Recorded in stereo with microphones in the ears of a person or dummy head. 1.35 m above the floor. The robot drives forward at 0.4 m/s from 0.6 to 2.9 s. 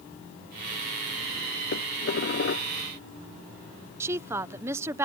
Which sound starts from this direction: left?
Dishes clattering, at 1.7 s.